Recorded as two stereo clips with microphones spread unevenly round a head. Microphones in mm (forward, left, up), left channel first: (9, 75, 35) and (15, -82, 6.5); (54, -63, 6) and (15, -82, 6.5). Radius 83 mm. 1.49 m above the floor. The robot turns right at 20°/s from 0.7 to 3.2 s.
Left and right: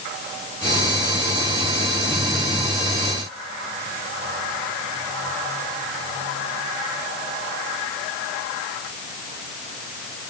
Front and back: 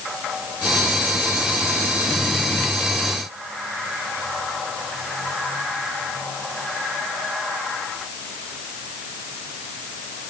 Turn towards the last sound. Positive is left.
No sound to turn to.